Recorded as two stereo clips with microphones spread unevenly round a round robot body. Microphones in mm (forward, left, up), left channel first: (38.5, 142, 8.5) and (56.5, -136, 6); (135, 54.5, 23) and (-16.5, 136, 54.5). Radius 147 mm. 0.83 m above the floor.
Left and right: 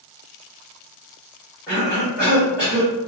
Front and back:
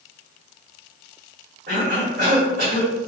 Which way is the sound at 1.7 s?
175° right.